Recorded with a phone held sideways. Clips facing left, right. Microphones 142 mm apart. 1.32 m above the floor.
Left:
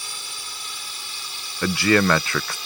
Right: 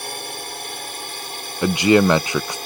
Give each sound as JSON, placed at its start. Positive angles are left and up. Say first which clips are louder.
{"t": 0.0, "sound": "a drone", "louder": "right 10 dB", "side_deg": -60}
{"t": 1.6, "sound": "a man speaking", "louder": "right 4 dB", "side_deg": -20}